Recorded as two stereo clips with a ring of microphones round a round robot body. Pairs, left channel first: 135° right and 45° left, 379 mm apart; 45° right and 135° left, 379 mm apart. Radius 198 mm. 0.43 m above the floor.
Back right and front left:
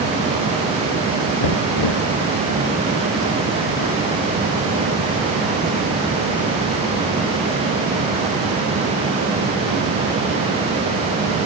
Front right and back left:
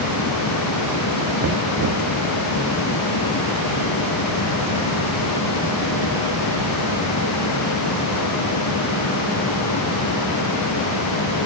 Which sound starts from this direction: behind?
Knocking, at 1.4 s.